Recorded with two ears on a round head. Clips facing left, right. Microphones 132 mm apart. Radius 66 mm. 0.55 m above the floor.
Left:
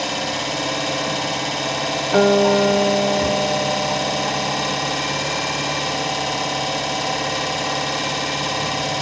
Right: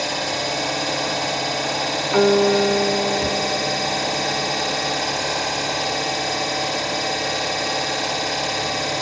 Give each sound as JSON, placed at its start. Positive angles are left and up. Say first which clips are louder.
{"t": 0.0, "sound": "an engine running", "louder": "even", "side_deg": 90, "distance_m": 2.0}
{"t": 2.1, "sound": "a guitar", "louder": "left 1 dB", "side_deg": 40, "distance_m": 0.8}